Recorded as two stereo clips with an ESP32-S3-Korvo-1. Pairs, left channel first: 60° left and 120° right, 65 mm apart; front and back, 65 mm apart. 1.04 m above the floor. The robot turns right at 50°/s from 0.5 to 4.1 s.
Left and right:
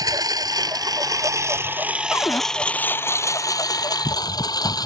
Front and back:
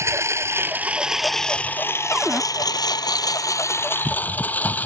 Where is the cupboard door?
95° left; by 2.4 s 110° left.